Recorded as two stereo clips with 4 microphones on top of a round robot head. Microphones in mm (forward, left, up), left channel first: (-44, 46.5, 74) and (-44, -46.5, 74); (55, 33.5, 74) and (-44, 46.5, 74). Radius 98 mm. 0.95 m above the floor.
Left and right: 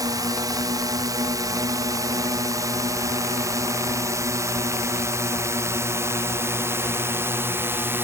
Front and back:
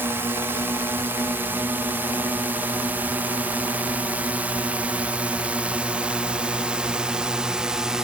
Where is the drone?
125° right; by 8.0 s 115° right.